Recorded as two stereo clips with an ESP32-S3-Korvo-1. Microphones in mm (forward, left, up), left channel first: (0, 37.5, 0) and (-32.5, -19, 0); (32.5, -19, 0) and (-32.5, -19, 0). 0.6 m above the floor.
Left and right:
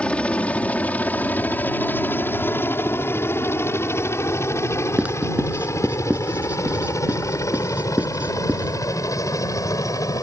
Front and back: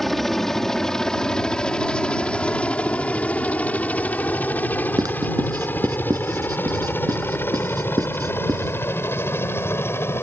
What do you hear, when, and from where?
0.0 s a helicopter: 80° left; by 10.2 s 45° left
5.0 s writing: 170° left